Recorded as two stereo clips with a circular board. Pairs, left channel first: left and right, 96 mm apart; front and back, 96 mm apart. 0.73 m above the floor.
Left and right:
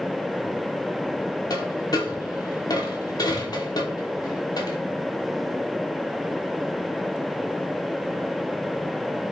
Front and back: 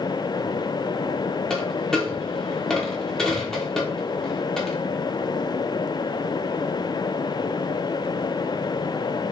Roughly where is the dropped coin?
Left.